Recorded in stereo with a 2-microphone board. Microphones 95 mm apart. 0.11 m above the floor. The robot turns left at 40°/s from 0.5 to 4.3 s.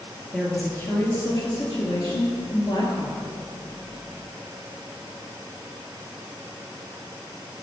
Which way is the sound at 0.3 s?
170° left.